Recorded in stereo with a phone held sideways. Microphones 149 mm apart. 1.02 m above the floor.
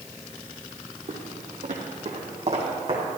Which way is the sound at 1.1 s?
60° right (ahead or behind).